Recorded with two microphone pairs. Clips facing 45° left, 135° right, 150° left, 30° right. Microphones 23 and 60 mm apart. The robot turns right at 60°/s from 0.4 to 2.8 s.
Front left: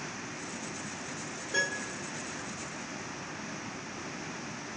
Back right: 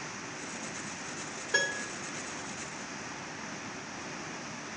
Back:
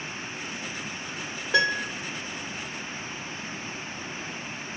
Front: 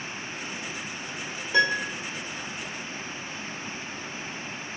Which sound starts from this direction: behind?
A piano, at 1.5 s.